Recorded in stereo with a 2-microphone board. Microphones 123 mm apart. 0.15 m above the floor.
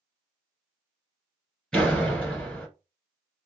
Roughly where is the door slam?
Centre.